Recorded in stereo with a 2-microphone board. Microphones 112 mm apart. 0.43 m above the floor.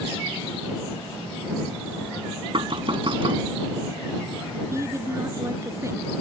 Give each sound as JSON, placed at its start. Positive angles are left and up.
{"t": 2.5, "sound": "knocking", "side_deg": -55}
{"t": 4.7, "sound": "a man speaking", "side_deg": -25}